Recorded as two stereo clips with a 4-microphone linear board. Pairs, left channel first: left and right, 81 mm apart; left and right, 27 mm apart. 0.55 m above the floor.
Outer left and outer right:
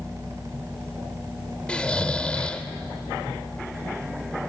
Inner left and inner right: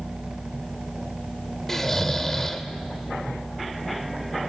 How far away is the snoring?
About 1.2 m.